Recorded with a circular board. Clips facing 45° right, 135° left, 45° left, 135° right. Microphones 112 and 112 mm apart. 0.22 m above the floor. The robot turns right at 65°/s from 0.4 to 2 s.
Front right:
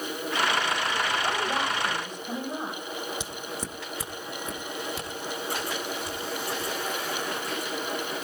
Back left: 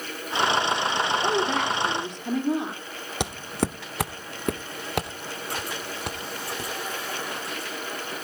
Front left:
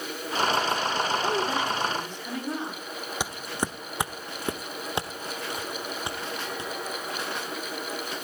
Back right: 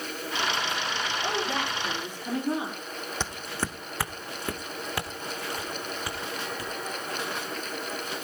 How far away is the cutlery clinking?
No cutlery clinking in this recording.